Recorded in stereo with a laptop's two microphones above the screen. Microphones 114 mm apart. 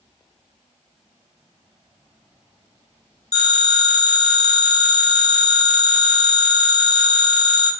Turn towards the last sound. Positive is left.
turn(degrees=75)  # may be behind; listen again after turning